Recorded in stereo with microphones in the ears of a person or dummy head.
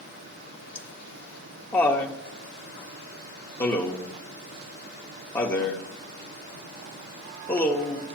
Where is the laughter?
15° left (ahead or behind), 0.7 m.